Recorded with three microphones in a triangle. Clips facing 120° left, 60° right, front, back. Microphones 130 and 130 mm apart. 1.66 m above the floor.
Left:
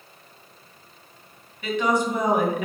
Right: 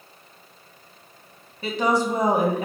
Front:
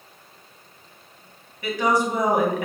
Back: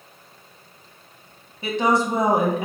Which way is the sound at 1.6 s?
115° right.